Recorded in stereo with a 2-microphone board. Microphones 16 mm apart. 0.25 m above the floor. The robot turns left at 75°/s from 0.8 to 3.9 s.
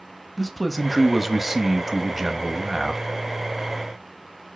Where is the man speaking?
5° left (ahead or behind), 1.1 m; by 3.0 s 5° right (ahead or behind), 1.1 m.